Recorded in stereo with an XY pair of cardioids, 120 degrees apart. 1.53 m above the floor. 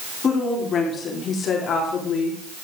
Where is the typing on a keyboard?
No typing on a keyboard in this recording.